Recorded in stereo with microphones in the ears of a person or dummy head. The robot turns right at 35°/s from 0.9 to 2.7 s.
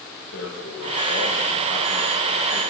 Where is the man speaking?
120° left, 1.4 m; by 2.6 s straight behind, 1.4 m.